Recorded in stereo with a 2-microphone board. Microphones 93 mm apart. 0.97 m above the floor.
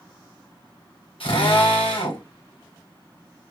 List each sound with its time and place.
1.2 s a drill: 80° left, 3.5 m